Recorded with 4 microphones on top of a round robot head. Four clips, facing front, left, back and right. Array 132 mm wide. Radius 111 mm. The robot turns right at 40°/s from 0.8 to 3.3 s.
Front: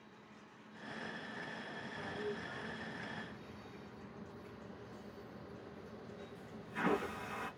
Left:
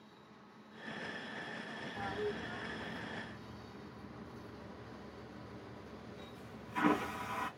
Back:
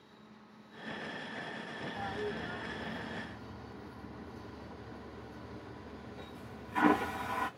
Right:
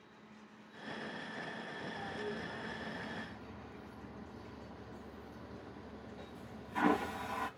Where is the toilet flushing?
150° left, 1.3 m; by 7.5 s 160° right, 1.3 m.